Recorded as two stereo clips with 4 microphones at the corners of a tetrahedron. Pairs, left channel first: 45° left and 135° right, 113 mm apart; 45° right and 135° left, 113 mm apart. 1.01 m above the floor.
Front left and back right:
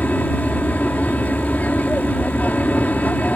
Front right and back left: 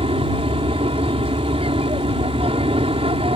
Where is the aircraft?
120° left.